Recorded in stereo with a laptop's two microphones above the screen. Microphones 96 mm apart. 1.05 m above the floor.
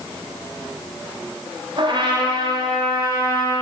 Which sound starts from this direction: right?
A trumpet, at 1.8 s.